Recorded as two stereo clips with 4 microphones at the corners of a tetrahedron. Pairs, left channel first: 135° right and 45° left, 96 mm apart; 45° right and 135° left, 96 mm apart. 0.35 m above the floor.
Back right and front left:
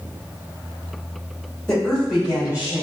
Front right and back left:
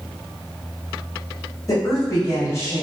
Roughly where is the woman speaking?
Ahead right.